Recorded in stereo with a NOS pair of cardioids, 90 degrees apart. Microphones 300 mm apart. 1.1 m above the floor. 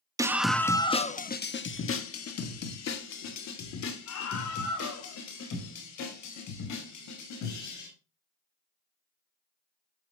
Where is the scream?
10° right, 1.1 m; by 7.9 s 75° left, 6 m.